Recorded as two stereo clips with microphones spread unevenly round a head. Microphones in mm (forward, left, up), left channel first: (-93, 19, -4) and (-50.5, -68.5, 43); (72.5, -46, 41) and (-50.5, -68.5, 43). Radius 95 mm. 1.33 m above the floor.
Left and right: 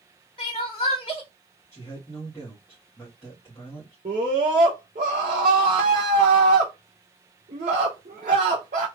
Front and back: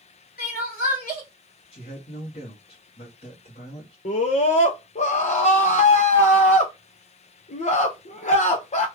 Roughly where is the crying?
Ahead left.